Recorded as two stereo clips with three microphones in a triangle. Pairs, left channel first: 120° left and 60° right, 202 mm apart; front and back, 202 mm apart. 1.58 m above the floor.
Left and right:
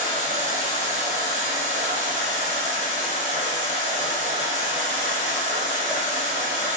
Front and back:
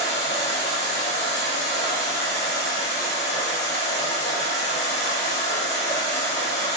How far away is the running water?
About 0.9 m.